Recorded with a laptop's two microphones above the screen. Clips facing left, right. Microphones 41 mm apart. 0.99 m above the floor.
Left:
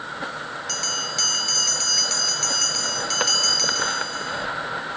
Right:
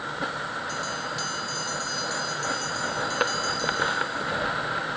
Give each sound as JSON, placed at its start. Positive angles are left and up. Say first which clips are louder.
{"t": 0.7, "sound": "a bell", "louder": "left 1 dB", "side_deg": 75}